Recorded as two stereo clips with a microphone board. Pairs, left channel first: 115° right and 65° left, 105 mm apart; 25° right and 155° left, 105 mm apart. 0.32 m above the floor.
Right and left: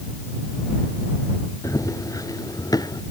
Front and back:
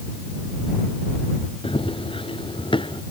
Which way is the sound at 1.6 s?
55° right.